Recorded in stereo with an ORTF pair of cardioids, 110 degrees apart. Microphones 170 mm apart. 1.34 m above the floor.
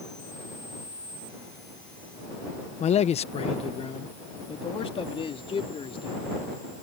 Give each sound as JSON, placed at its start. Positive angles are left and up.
{"t": 2.8, "sound": "a man speaking", "azimuth_deg": 40}